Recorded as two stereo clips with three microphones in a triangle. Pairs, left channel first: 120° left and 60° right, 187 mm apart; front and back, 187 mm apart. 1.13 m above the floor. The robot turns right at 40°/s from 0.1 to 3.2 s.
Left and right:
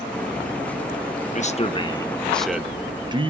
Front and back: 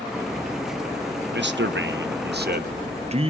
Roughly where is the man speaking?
Behind.